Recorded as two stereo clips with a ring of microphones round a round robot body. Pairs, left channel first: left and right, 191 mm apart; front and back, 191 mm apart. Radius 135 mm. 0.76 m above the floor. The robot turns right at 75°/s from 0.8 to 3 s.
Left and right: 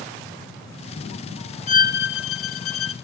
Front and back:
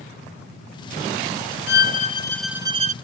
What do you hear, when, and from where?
1.7 s a violin: 30° left, 0.6 m; by 2.9 s 125° left, 0.6 m